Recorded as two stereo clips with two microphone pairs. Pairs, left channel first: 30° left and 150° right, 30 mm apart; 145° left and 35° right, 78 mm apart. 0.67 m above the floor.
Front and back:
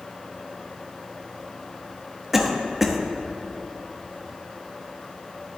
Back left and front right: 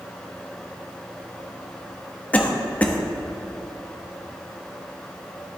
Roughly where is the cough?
Behind left.